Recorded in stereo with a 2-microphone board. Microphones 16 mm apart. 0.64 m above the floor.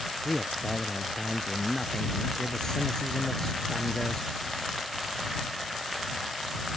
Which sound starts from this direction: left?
A man speaking, at 0.2 s.